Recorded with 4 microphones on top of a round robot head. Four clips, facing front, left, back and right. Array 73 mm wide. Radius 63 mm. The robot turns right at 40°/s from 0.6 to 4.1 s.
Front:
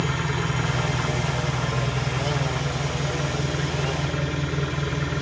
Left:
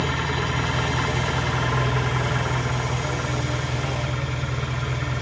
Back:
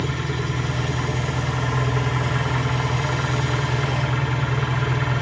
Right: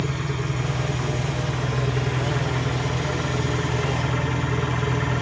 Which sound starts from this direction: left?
An engine running, at 0.0 s.